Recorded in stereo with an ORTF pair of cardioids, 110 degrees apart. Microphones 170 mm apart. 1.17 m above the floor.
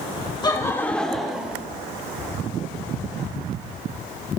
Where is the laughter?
25° left, 1.3 m; by 1.6 s 10° right, 2.0 m.